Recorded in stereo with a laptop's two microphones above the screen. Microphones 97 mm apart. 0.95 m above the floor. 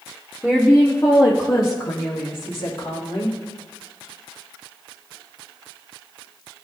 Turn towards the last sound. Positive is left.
turn(degrees=75)  # may be behind; listen again after turning